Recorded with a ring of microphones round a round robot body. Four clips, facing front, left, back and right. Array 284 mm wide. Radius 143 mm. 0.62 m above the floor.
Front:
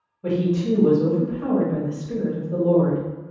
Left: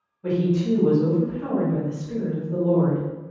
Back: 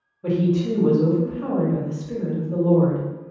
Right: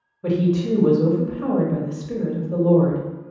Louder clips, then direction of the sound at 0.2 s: Right 2 dB, back 1 dB; 90° right.